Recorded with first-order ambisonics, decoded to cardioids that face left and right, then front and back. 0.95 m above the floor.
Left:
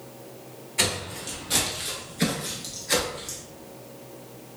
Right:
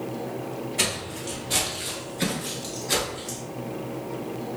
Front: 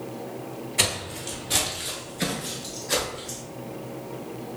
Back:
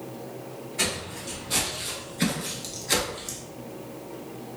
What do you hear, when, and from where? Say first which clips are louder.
0.8 s footsteps: left 2 dB, front 3 dB; 20° left, 1.1 m; by 3.4 s 175° left, 1.2 m